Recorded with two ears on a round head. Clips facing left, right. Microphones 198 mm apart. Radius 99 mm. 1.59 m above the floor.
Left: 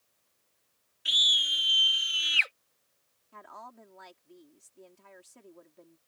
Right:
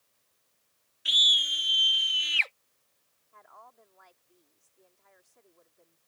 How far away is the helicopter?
I don't hear a helicopter.